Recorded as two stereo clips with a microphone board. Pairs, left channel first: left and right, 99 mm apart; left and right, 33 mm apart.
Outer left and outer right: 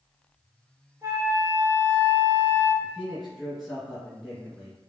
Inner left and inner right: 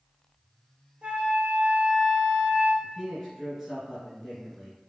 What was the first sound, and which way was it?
A flute, 35° right (ahead or behind).